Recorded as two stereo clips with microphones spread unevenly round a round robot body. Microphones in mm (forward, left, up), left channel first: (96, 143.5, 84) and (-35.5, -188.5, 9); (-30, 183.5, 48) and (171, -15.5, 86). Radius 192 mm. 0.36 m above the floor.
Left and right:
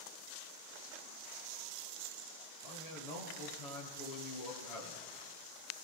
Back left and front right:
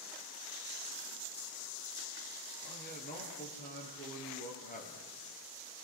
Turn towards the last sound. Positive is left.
turn(degrees=75)